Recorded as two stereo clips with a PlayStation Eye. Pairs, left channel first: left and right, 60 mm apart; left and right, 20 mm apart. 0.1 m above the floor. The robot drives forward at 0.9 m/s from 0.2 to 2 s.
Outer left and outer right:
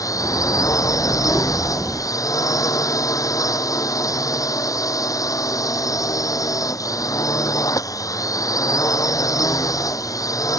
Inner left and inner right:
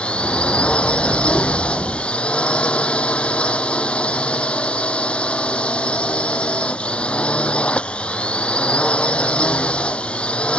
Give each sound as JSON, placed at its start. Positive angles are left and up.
{"t": 0.0, "sound": "a drone", "side_deg": 70}